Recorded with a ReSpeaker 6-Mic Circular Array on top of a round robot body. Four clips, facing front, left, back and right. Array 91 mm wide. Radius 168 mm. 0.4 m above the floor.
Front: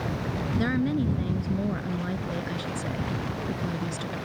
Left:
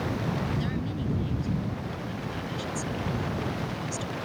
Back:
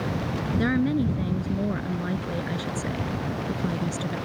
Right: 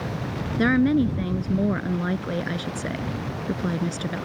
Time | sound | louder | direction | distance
0.6 | a woman speaking | right 13 dB, back 3 dB | 95° right | ?